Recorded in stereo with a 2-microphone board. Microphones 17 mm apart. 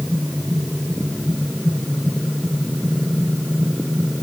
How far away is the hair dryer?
I don't hear a hair dryer.